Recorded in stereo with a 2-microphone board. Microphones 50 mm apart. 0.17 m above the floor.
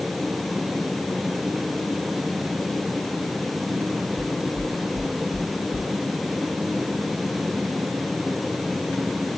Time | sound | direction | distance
4.2 | knocking | 40° left (ahead or behind) | 4 m